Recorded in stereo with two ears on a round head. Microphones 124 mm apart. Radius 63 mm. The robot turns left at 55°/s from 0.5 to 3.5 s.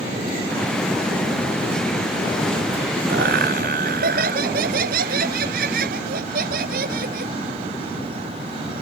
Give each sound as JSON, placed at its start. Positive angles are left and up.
{"t": 3.1, "sound": "laughter", "side_deg": -80}